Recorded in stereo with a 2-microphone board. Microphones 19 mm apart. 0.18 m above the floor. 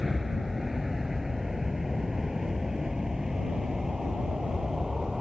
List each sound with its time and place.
0.0 s an aircraft: 10° right (ahead or behind); by 5.2 s 30° right (ahead or behind)